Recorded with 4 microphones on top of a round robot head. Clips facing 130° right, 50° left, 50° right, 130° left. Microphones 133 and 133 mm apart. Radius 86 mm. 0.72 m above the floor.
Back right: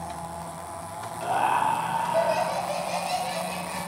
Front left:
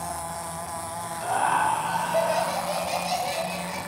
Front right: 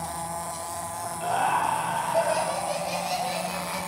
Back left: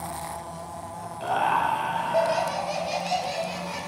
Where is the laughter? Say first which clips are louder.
Even, back left 1 dB; 165° left, 1.9 m; by 3.8 s 90° left, 3.5 m.